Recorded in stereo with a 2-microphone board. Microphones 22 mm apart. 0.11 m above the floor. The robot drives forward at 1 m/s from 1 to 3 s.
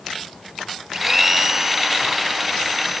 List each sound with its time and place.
0.9 s a blender: 25° right (ahead or behind); by 3.0 s 10° right (ahead or behind)